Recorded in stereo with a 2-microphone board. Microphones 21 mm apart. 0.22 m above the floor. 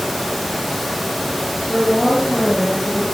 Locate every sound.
1.7 s a woman speaking: 75° left (ahead or behind), 5 m